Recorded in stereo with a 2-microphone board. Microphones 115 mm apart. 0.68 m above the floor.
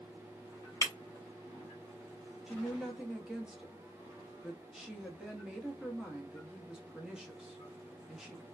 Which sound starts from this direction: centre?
A woman speaking, at 2.5 s.